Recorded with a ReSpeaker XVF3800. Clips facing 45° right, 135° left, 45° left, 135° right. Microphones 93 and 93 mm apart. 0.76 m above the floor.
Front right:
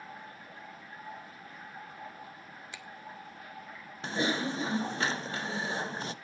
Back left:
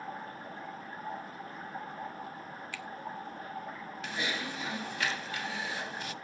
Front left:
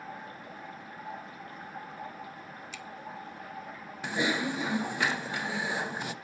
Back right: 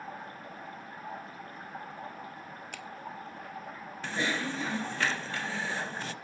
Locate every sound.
0.0 s running water: 175° left, 6 m
2.7 s a finger snap: 110° right, 1.2 m
4.0 s typing on a keyboard: 20° right, 0.6 m